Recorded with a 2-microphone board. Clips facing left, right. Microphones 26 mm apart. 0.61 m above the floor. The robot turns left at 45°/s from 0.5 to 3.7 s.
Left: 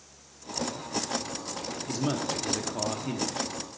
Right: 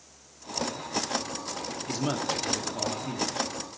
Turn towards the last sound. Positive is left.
turn(degrees=120)